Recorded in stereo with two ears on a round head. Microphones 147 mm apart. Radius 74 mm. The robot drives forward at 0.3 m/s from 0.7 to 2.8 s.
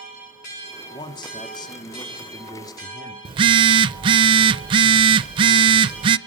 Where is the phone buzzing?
30° right (ahead or behind), 0.5 m.